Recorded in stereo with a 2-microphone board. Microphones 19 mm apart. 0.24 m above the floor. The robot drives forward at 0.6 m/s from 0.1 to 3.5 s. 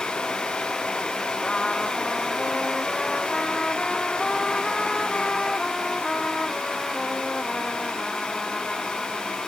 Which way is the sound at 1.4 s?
35° left (ahead or behind).